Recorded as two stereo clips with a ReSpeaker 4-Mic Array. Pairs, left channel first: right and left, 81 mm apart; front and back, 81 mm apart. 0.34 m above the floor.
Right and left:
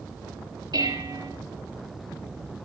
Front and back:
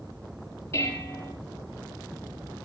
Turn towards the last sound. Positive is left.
turn(degrees=55)